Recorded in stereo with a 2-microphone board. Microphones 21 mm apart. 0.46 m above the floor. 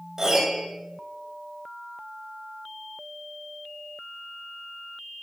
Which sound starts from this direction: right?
A piano, at 0.2 s.